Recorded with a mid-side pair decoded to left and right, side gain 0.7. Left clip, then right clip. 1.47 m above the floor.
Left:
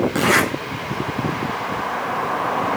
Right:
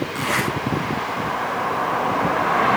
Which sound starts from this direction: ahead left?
A zipper, at 0.1 s.